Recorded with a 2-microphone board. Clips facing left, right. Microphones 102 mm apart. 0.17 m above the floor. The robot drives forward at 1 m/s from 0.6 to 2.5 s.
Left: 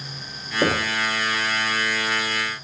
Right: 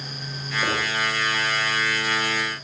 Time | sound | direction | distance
0.6 | knocking | 75° left (ahead or behind) | 5 m